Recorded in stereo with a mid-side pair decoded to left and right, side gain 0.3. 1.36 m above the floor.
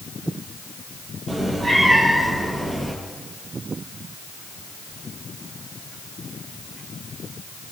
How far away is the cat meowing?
About 4 m.